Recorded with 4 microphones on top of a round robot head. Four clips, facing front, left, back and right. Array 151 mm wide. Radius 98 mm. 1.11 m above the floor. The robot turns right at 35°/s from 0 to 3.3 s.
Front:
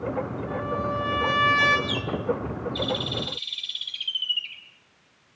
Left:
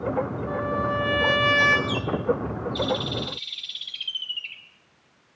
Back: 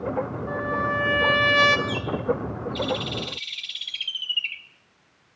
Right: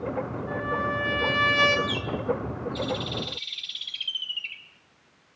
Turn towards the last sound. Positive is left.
turn(degrees=180)